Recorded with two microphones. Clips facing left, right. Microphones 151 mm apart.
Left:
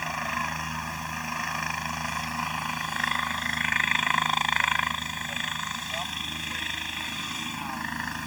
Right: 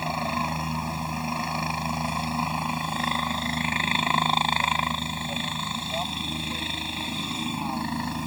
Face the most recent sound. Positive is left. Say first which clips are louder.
# right 5 dB
turn(degrees=-30)  # may be behind; listen again after turning